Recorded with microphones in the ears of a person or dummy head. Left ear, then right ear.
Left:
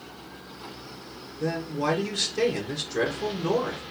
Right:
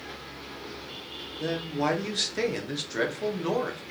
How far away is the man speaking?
About 1.0 m.